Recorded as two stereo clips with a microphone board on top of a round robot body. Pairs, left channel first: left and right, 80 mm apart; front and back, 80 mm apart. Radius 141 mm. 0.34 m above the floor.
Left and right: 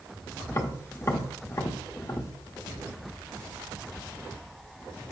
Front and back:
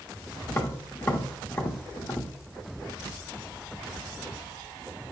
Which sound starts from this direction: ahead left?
Tapping, at 0.5 s.